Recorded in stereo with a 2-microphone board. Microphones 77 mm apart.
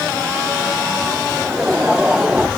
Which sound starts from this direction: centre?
Laughter, at 1.3 s.